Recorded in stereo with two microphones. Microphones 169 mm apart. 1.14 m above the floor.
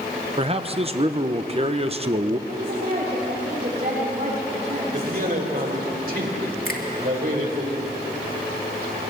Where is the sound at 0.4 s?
35° right (ahead or behind), 0.9 m.